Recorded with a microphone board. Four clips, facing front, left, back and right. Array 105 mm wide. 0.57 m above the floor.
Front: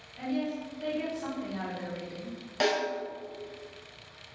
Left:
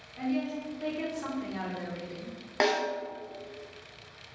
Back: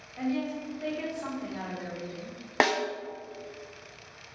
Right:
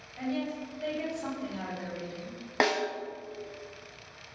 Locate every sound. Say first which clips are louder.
0.2 s a woman speaking: left 2 dB, back 1 dB; 155° left, 1.5 m; by 2.4 s 65° left, 1.6 m
2.6 s a snare drum: even, back 2 dB; 170° right, 0.6 m